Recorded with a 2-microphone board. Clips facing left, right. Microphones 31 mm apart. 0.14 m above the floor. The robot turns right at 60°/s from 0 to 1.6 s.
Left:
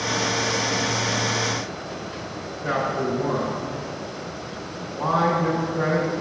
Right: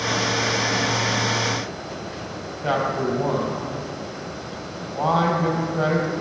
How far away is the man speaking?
About 4 m.